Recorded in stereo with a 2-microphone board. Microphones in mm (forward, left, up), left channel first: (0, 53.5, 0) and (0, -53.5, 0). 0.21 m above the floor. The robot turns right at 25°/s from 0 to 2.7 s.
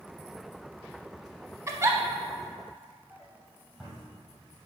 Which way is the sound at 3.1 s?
Centre (ahead or behind).